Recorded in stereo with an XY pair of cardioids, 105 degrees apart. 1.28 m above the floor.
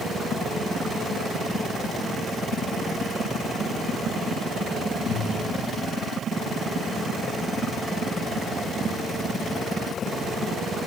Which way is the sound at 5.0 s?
70° left.